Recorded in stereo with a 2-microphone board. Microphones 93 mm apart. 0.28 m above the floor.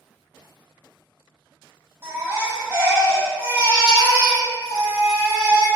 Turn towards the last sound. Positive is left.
turn(degrees=-30)  # may be behind; listen again after turning